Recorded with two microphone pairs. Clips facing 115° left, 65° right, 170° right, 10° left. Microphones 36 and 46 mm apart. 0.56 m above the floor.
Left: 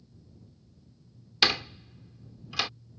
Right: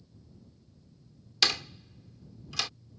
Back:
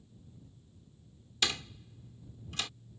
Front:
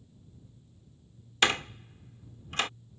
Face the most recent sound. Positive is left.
turn(degrees=45)